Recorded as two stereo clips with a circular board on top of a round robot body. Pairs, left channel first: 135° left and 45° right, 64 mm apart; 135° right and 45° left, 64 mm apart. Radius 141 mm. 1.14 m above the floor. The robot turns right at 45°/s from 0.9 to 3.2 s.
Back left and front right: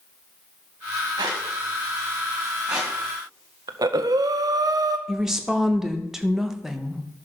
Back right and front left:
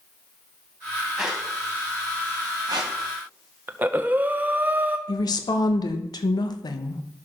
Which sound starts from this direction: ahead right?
A squeak, at 1.2 s.